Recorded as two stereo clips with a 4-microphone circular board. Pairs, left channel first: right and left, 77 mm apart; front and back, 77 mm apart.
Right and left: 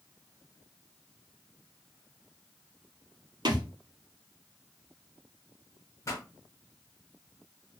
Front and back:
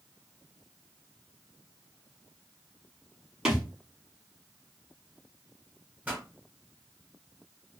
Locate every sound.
3.5 s a thud: 100° left, 0.9 m
6.0 s a pop: 115° right, 1.2 m